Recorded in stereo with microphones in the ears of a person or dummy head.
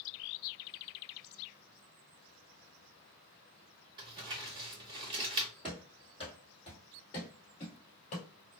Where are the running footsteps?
10° right (ahead or behind), 1.6 m; by 8.3 s 35° left (ahead or behind), 1.8 m.